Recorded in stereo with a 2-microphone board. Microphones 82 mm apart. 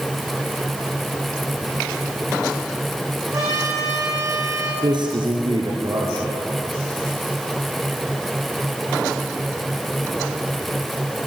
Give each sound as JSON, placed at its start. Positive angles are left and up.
{"t": 3.3, "sound": "a trumpet", "side_deg": -45, "distance_m": 9.5}
{"t": 4.8, "sound": "a man speaking", "side_deg": -65, "distance_m": 3.5}